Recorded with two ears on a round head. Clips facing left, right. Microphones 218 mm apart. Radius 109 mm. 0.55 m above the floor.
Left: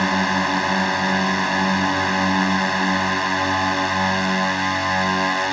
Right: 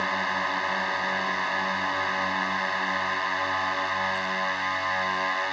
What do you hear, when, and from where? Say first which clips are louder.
0.0 s a drone: left 11 dB; 70° left (ahead or behind)